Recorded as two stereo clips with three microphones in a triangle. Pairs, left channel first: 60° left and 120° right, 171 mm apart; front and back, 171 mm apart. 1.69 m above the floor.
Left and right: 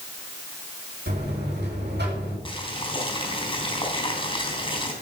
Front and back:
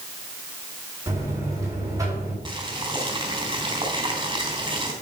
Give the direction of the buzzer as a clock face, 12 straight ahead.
4 o'clock.